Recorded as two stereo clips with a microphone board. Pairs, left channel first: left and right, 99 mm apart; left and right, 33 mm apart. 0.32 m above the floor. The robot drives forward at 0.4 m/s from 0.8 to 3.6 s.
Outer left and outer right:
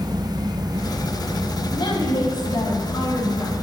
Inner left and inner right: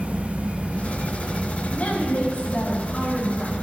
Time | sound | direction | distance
1.7 | a woman speaking | 50° left (ahead or behind) | 2.5 m